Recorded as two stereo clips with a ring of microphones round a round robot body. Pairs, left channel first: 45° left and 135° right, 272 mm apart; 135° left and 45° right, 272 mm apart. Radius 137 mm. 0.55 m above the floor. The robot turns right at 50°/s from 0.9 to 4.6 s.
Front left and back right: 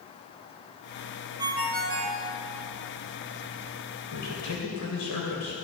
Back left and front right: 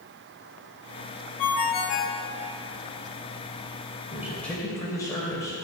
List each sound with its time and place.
1.4 s a ringtone: 150° left, 2 m; by 2.2 s 170° right, 2 m
4.1 s a man speaking: 30° left, 3 m; by 5.5 s 55° left, 3 m